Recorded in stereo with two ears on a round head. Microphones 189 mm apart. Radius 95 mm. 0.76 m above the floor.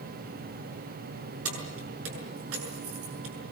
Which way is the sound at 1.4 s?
80° right.